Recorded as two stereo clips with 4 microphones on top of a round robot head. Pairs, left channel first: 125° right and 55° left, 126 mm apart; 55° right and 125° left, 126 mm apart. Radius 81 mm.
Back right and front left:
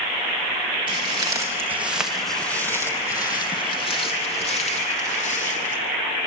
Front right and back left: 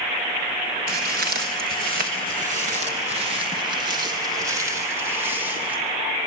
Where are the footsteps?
110° left, 2.5 m; by 5.8 s 155° right, 5 m.